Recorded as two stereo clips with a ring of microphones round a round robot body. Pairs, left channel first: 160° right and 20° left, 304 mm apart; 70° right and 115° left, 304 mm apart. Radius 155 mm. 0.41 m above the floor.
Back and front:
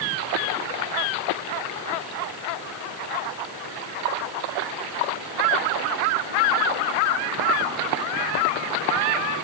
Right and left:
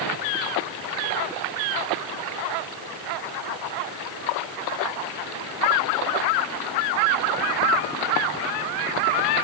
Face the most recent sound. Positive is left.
No sound to turn to.